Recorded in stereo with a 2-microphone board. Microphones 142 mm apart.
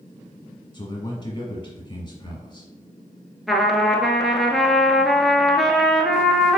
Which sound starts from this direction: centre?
A trumpet, at 3.5 s.